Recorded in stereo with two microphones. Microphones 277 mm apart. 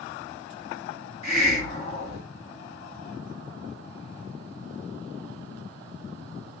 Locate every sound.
1.2 s a hiss: 25° left (ahead or behind), 1.4 m